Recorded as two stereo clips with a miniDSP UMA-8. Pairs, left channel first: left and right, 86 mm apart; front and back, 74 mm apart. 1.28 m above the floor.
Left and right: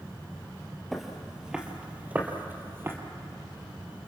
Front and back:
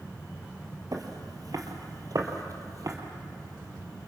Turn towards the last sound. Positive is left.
turn(degrees=-150)